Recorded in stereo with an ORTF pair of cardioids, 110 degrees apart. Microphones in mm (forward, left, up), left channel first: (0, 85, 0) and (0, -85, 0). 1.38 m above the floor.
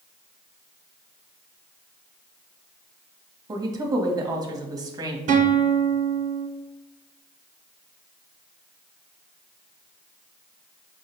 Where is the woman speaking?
20° right, 1.0 m.